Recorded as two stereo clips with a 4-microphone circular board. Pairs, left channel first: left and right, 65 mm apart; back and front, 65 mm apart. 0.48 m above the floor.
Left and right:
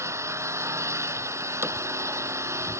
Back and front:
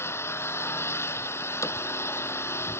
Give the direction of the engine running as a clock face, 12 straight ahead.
4 o'clock.